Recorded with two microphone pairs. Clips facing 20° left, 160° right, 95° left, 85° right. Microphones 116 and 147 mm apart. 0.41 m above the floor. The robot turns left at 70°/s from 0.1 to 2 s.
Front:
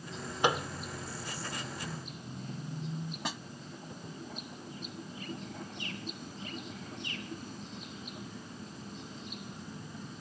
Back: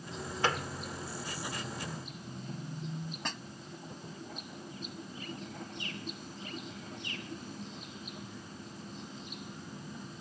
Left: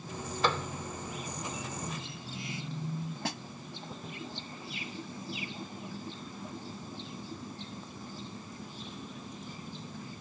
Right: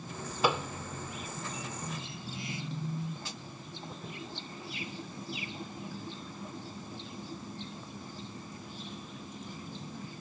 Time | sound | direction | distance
0.4 | a microwave | 20° right | ?
3.2 | a snare drum | 100° left | ?